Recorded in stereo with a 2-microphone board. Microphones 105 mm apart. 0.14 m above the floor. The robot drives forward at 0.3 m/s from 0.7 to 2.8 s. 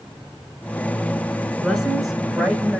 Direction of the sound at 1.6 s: Centre (ahead or behind).